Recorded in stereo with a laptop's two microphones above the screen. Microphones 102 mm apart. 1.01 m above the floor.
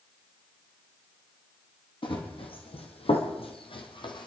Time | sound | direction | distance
2.0 | running footsteps | 55° left (ahead or behind) | 2.5 m